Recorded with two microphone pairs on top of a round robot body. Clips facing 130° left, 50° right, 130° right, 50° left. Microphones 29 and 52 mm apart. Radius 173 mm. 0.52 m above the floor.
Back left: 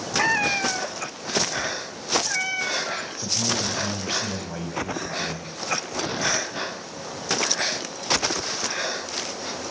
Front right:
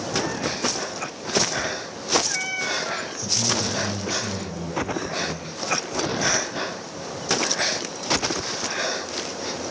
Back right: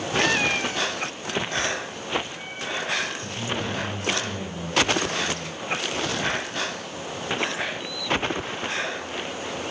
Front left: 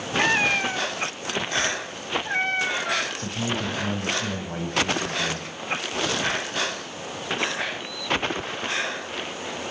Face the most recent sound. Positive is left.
turn(degrees=80)